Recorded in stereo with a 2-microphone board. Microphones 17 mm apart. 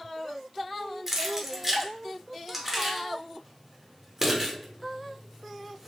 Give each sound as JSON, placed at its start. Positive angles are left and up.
{"t": 1.1, "sound": "keys jangling", "side_deg": -20, "distance_m": 0.7}